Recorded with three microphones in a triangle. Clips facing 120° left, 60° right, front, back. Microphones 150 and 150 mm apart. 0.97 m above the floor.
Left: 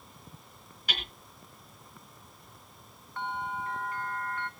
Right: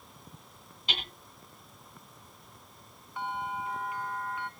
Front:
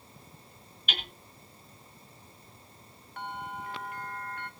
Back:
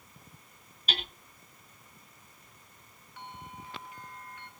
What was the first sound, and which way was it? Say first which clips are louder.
Hammering: right 1 dB, back 2 dB; 125° right.